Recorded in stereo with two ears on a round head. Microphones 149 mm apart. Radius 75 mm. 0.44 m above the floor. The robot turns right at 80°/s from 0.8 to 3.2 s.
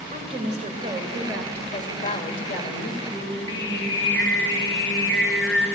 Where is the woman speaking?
50° right, 1.8 m; by 2.9 s 120° left, 1.8 m.